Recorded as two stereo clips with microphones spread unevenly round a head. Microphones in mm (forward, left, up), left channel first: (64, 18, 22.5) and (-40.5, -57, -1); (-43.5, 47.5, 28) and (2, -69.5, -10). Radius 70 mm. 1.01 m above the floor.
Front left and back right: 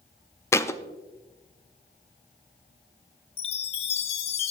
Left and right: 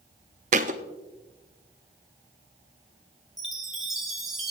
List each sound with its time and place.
0.5 s a thud: 25° right, 0.5 m
3.4 s a chime: 35° left, 0.9 m